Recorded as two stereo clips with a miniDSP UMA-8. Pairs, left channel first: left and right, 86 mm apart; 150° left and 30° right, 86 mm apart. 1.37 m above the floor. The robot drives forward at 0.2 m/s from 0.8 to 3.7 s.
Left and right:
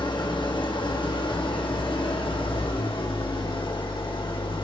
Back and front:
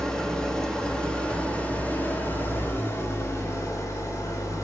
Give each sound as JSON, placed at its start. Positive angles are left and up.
{"t": 0.0, "sound": "an engine running", "azimuth_deg": 70, "distance_m": 1.2}